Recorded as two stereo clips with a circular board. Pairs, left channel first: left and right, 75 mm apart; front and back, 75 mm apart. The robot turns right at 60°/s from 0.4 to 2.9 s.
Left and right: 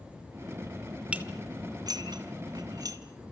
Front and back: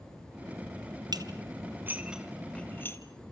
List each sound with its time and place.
1.1 s dishes clattering: 165° right, 2 m; by 3.0 s 55° right, 2 m